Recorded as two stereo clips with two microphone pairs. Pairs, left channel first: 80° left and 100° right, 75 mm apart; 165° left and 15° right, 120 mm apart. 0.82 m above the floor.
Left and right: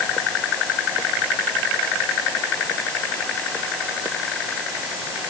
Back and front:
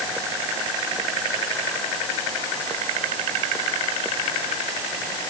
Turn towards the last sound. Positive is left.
No sound to turn to.